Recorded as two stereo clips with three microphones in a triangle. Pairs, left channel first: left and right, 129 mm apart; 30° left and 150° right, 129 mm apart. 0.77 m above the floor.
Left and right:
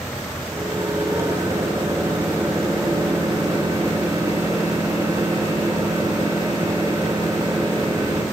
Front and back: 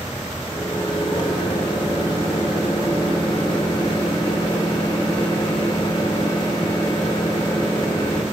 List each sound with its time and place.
0.5 s a microwave: 25° right, 2 m